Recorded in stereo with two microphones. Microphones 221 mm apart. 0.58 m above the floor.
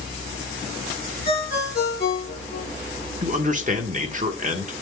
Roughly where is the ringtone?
Left.